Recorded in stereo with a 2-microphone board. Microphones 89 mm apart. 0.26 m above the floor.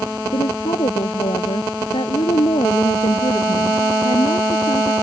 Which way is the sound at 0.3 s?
75° left (ahead or behind).